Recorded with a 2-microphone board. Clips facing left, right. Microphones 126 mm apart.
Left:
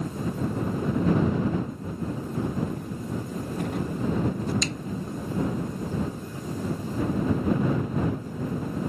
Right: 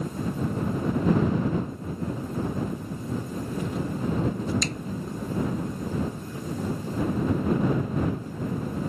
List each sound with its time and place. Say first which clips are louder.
2.6 s footsteps: even; 65° left (ahead or behind); by 4.5 s 55° left (ahead or behind)
4.6 s a snare drum: even; 45° right (ahead or behind)